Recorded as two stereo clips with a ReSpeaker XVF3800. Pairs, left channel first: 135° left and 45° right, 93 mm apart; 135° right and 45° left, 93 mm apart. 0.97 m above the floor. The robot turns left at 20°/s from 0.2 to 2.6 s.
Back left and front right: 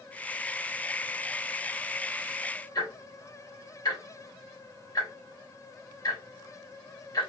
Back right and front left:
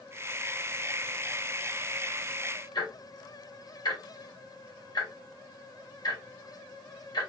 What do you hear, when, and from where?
2.8 s ticking: straight behind, 2.0 m